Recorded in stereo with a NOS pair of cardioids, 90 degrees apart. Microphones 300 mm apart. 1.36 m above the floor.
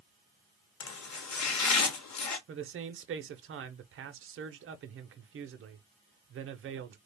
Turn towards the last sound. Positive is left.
turn(degrees=-45)